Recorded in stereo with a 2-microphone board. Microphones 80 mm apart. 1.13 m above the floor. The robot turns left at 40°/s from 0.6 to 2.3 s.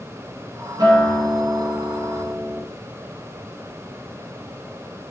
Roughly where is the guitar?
Ahead right.